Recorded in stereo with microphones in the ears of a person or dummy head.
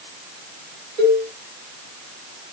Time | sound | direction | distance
1.0 | a cowbell | 50° right (ahead or behind) | 1.6 m